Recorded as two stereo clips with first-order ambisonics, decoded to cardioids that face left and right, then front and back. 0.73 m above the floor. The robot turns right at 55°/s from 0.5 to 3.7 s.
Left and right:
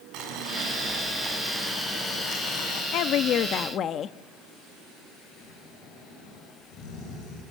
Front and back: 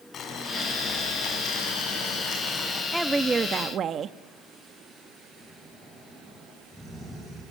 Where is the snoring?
80° left, 8 m.